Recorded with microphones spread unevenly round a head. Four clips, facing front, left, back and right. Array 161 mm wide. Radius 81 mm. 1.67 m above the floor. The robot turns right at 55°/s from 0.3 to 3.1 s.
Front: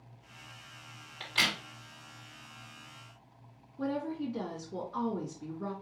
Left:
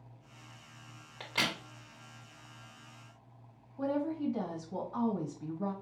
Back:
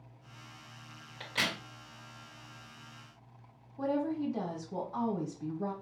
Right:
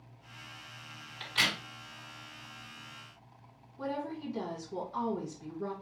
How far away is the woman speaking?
About 1.5 m.